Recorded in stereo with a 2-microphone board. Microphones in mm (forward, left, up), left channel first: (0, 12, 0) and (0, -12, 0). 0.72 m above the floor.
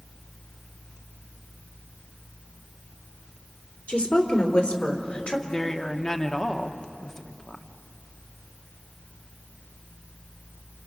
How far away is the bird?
No bird in this recording.